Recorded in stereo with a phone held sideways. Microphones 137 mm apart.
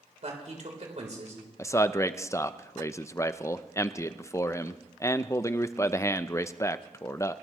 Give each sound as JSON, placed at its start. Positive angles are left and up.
{"t": 0.2, "sound": "a man speaking", "side_deg": -55, "distance_m": 4.0}
{"t": 1.6, "sound": "a man speaking", "side_deg": 20, "distance_m": 0.6}